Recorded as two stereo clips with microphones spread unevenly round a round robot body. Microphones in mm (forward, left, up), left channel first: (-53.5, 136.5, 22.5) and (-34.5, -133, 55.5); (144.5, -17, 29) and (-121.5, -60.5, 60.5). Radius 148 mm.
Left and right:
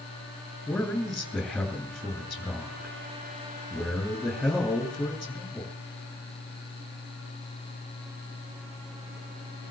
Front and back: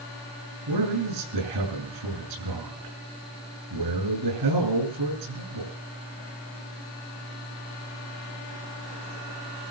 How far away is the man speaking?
About 7 m.